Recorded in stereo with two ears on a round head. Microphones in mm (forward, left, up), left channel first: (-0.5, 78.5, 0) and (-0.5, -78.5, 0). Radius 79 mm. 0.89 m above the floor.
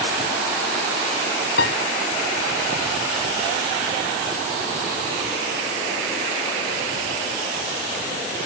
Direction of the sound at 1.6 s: 70° left (ahead or behind).